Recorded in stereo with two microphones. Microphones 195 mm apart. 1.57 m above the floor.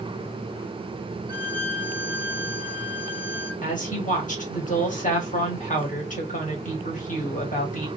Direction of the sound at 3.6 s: 40° left (ahead or behind).